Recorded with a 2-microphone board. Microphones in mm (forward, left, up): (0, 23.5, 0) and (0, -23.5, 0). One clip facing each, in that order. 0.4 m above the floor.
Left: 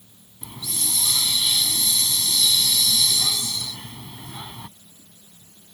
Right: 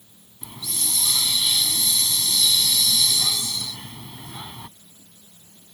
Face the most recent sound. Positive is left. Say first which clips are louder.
# even
turn(degrees=0)  # may be behind; listen again after turning